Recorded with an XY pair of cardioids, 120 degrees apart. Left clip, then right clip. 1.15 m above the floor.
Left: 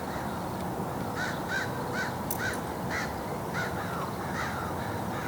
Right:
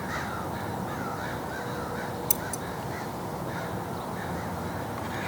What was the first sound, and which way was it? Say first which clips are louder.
Scissors: left 1 dB; 70° right.